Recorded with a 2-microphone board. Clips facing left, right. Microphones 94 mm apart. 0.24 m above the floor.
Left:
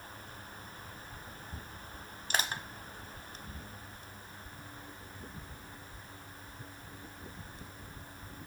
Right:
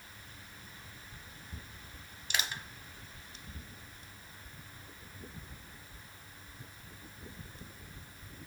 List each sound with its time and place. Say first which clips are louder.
2.3 s crushing: left 3 dB; 40° left (ahead or behind), 1.2 m